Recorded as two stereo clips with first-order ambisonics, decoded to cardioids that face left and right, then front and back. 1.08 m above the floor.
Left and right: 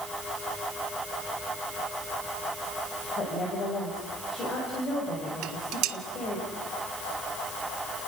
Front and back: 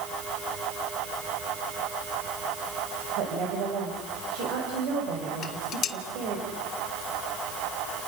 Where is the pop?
No pop in this recording.